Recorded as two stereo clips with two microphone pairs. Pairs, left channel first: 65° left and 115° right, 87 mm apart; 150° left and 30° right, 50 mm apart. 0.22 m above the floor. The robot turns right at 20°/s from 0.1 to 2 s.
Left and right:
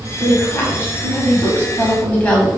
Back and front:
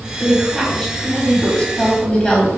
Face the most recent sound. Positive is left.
turn(degrees=115)